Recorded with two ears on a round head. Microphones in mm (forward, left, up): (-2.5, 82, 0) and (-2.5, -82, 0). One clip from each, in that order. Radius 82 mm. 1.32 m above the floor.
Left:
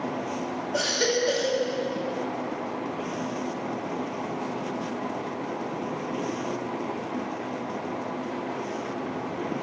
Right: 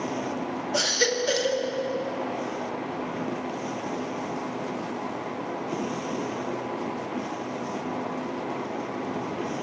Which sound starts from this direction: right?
A baby crying, at 0.7 s.